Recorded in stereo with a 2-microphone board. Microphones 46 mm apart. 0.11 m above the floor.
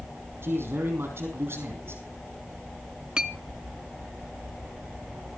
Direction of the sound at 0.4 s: 60° right (ahead or behind).